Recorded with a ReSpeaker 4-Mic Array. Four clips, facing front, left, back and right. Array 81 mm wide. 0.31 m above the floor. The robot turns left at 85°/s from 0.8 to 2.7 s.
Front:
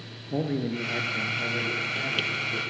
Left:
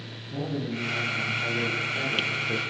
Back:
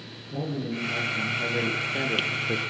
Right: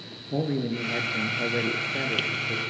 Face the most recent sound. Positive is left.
turn(degrees=155)